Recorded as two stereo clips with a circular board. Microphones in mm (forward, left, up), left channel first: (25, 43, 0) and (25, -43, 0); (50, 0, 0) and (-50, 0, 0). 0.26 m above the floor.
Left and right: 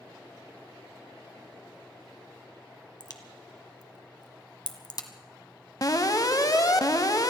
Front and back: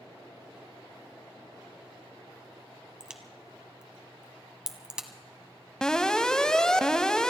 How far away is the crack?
About 1.2 m.